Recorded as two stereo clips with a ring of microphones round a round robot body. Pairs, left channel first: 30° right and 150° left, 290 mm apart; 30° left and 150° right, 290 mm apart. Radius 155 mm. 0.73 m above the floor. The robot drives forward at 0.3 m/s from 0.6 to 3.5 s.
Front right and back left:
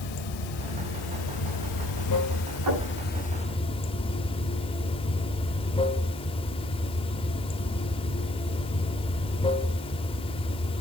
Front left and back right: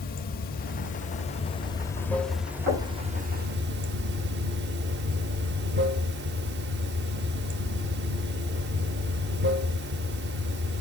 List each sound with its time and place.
0.0 s running water: 30° right, 1.0 m; by 10.8 s 100° right, 0.6 m
2.7 s knocking: 155° left, 7.5 m